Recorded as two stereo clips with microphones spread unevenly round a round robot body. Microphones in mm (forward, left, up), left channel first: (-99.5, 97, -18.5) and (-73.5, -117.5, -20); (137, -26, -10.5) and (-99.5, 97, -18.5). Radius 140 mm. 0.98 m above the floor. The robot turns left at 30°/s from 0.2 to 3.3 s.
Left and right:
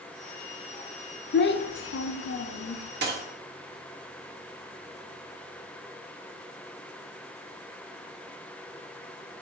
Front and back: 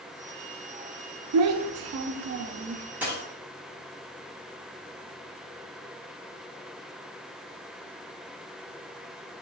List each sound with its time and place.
1.3 s a child speaking: 135° left, 0.5 m; by 2.9 s 90° left, 0.5 m
3.0 s a dropped coin: 120° right, 1.3 m; by 3.2 s 130° right, 1.3 m